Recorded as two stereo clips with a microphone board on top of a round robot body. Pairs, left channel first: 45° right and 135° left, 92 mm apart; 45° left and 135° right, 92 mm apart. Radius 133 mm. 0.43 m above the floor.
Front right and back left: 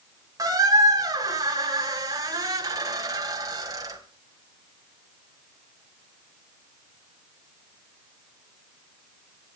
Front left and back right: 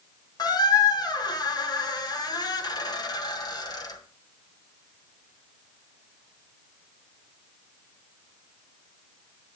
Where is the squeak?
85° left, 2.5 m.